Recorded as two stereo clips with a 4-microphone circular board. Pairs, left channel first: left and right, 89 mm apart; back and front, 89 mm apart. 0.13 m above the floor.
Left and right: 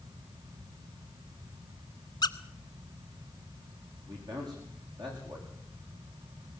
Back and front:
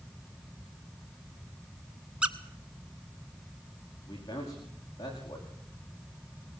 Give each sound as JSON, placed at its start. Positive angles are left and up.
{"t": 2.2, "sound": "a squeak", "azimuth_deg": 75, "distance_m": 1.0}
{"t": 4.1, "sound": "a man speaking", "azimuth_deg": -130, "distance_m": 10.0}